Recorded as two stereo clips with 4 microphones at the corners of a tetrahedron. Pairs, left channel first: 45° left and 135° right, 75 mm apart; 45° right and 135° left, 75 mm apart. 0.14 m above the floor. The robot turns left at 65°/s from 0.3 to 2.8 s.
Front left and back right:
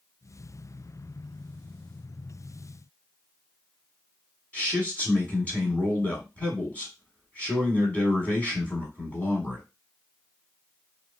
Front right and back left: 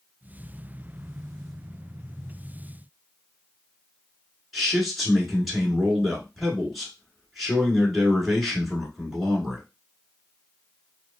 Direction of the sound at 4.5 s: 45° left.